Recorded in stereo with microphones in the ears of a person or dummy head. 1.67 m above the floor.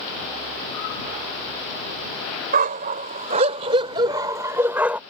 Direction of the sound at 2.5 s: 50° right (ahead or behind).